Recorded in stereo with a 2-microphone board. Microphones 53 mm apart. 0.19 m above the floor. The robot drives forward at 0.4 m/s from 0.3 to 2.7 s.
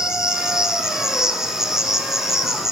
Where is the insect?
15° right (ahead or behind), 1.7 m; by 2.7 s 10° right (ahead or behind), 2.5 m.